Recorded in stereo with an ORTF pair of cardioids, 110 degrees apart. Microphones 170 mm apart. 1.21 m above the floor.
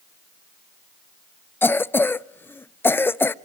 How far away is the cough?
About 0.6 m.